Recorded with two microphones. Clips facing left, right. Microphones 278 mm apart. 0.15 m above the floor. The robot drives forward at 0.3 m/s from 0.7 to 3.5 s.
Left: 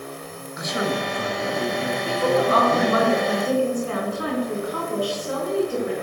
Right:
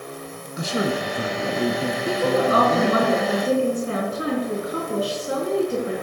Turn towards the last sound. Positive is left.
turn(degrees=-25)  # may be behind; listen again after turning